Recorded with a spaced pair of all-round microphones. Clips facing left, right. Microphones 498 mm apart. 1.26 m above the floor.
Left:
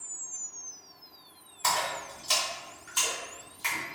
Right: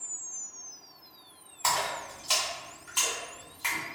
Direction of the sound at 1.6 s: 45° left (ahead or behind).